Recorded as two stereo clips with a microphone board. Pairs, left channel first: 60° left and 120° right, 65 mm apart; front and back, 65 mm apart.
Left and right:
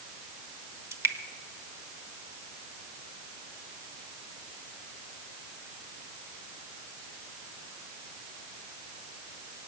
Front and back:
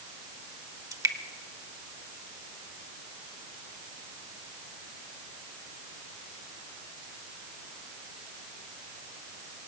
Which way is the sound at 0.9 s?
160° right.